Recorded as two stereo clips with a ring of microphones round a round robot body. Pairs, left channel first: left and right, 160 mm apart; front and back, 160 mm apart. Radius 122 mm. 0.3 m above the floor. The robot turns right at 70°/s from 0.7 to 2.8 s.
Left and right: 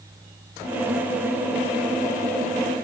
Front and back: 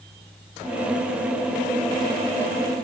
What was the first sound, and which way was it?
Only background noise.